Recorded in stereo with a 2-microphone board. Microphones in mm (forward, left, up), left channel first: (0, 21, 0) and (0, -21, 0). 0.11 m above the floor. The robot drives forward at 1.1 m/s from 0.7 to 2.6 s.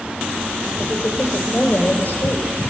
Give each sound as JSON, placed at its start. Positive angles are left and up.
{"t": 0.8, "sound": "a woman speaking", "side_deg": 35, "distance_m": 4.0}